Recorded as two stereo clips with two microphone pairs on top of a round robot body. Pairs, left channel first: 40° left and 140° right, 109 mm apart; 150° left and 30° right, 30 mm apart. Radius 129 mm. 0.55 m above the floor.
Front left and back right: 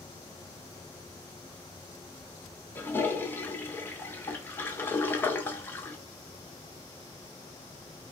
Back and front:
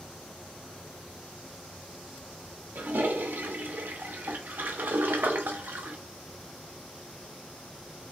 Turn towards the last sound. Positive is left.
turn(degrees=-25)